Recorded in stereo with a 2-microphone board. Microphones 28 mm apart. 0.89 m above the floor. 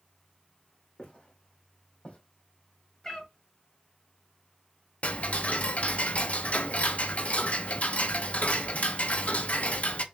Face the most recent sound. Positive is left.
turn(degrees=60)  # may be behind; listen again after turning